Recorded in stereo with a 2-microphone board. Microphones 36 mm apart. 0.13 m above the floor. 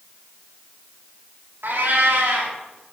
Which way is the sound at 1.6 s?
75° right (ahead or behind).